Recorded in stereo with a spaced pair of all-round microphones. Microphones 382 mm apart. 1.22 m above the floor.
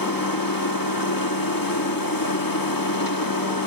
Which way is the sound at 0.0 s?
60° left (ahead or behind).